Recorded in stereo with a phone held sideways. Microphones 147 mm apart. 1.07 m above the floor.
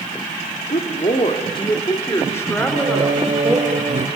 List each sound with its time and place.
0.7 s a woman speaking: 65° left (ahead or behind), 2 m; by 3.6 s centre (ahead or behind), 3.5 m
2.6 s singing: 55° right (ahead or behind), 1.4 m